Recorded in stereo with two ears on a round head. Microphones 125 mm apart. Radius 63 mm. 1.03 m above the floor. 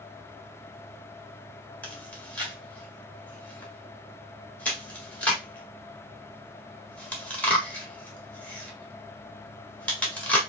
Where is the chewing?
10° left (ahead or behind), 1.8 m.